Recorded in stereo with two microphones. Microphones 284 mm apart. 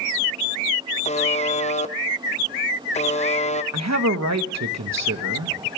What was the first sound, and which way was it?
A buzzer, 25° left (ahead or behind).